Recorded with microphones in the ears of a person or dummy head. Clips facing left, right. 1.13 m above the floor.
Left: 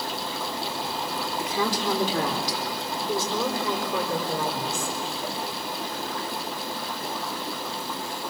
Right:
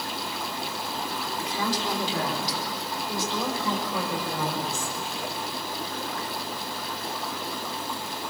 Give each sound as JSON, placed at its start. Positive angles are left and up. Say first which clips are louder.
{"t": 1.4, "sound": "a woman speaking", "louder": "left 2 dB", "side_deg": 50, "distance_m": 3.5}